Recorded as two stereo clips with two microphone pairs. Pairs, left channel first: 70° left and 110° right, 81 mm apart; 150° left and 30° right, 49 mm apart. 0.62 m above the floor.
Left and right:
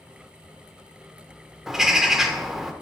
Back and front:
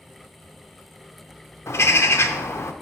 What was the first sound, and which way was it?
A bird, 165° left.